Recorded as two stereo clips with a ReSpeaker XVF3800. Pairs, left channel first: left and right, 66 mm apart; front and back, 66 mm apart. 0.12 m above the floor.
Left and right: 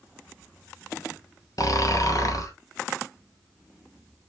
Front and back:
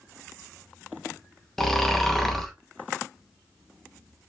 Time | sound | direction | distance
1.6 | snoring | 85° left | 0.6 m